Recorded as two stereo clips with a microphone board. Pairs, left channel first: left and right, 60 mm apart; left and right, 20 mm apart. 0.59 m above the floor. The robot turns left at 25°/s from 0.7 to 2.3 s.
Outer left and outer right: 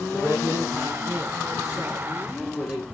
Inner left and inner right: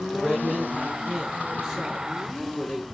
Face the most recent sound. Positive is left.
turn(degrees=-175)